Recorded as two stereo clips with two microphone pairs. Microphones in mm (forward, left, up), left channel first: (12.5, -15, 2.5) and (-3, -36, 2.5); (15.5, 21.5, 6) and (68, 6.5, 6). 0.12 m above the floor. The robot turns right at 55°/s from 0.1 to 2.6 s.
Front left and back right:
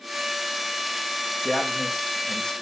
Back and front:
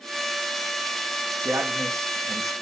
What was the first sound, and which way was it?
A man speaking, 65° right.